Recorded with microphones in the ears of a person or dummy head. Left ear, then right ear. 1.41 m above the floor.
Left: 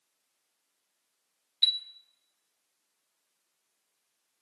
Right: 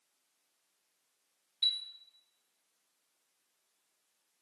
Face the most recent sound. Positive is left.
turn(degrees=25)  # may be behind; listen again after turning